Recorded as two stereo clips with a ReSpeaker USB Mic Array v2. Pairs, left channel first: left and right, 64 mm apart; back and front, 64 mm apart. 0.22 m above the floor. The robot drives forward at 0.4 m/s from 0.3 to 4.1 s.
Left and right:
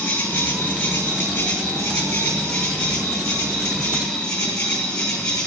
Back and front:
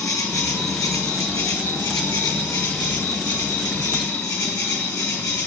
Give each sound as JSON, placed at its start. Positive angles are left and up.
{"t": 0.0, "sound": "an insect", "azimuth_deg": 150, "distance_m": 2.5}